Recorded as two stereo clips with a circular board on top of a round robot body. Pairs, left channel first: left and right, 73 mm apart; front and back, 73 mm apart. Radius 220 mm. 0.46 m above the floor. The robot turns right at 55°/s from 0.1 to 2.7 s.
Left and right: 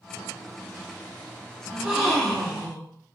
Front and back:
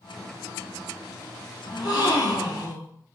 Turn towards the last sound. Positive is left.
turn(degrees=30)